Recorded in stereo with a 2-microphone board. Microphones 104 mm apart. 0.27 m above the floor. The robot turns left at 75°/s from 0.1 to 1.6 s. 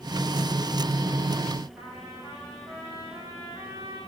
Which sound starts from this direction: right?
A trumpet, at 1.8 s.